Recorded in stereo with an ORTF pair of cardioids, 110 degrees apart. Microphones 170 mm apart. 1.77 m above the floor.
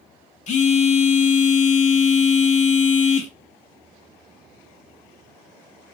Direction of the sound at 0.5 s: 45° left.